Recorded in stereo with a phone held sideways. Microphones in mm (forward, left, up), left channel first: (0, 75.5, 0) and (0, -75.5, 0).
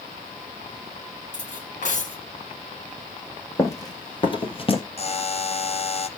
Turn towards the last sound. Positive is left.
turn(degrees=45)  # may be behind; listen again after turning